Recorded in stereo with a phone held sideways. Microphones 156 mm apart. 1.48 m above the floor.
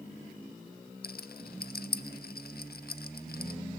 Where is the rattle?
75° left (ahead or behind), 0.6 m.